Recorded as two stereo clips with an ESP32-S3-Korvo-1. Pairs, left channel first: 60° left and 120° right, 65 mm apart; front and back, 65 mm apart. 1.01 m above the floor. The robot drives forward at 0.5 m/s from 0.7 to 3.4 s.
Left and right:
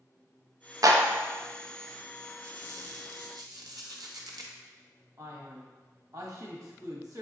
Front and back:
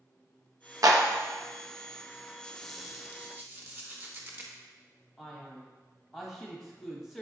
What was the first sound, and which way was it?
A clap, 150° right.